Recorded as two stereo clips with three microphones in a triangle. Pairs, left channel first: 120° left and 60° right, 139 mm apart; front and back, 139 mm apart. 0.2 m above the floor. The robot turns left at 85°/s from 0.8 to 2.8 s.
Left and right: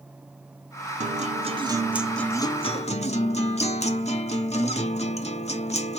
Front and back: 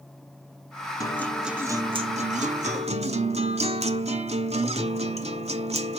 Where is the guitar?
60° right, 0.8 m; by 6.0 s 150° left, 0.8 m.